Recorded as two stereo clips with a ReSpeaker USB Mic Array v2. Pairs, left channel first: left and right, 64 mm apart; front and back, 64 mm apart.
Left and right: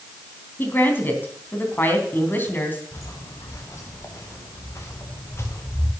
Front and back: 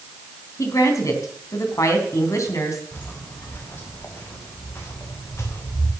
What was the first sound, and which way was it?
A woman speaking, 35° left.